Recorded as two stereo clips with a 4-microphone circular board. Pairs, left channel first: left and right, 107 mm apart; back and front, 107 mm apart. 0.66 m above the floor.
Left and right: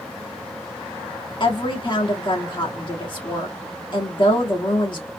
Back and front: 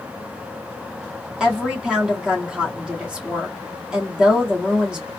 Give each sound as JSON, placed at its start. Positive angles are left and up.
{"t": 1.4, "sound": "a woman speaking", "azimuth_deg": 80, "distance_m": 1.5}